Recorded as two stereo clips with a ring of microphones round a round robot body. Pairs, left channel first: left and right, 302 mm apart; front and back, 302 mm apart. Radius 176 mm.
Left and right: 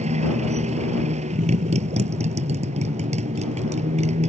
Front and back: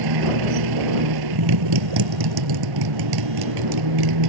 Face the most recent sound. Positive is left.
turn(degrees=-160)